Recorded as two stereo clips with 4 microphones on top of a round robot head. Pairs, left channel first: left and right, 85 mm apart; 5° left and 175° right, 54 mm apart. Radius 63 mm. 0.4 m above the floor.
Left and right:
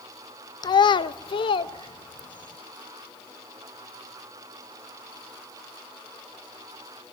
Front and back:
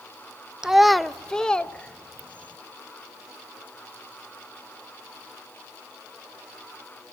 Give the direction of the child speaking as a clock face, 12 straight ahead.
8 o'clock.